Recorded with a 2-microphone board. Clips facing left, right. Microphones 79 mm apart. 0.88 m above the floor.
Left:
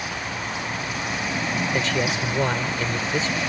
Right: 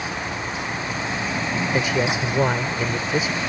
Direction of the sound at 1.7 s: 15° right (ahead or behind).